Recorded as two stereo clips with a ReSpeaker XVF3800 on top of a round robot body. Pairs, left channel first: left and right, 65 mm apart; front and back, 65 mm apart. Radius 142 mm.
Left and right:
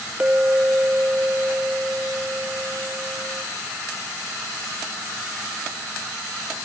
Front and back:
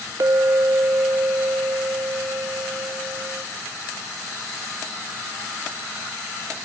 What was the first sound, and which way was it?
A clink, 155° right.